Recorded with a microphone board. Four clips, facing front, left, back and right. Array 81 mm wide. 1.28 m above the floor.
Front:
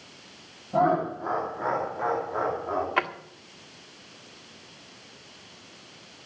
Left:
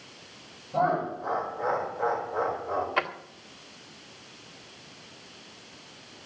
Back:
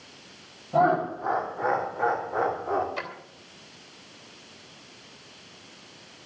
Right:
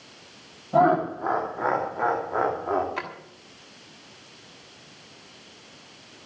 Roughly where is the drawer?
Ahead.